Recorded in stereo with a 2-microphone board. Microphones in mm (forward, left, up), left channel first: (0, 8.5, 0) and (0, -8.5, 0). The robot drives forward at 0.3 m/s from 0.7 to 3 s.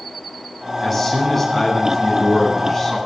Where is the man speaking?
Centre (ahead or behind), 9 m.